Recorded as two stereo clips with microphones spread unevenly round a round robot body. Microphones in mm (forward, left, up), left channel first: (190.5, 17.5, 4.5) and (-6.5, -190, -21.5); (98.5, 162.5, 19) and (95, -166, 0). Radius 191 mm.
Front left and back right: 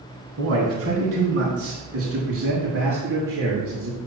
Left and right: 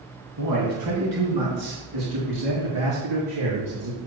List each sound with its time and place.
0.4 s a man speaking: 105° right, 2.5 m; by 4.0 s 90° right, 5.5 m